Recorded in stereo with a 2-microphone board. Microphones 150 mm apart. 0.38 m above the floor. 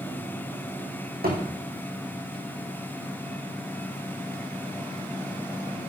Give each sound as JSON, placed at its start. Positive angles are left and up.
{"t": 1.2, "sound": "a thud", "side_deg": -85, "distance_m": 3.0}